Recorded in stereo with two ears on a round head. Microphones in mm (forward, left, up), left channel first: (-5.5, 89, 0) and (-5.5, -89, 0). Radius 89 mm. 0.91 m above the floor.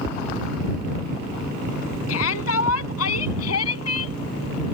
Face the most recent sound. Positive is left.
turn(degrees=85)